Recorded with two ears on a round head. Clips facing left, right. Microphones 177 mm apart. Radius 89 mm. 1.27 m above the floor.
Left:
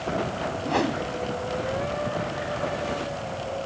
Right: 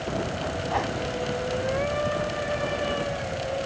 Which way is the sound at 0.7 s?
45° left (ahead or behind).